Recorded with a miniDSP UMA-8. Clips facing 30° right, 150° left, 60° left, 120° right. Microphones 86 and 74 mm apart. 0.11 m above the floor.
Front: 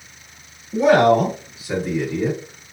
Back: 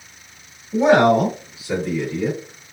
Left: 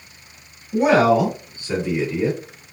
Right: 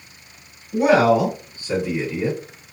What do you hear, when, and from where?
0.7 s a man speaking: 155° left, 1.8 m; by 2.4 s 45° right, 1.8 m